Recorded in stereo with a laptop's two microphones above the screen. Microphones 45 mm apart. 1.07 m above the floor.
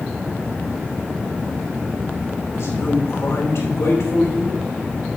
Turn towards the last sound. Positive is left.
turn(degrees=85)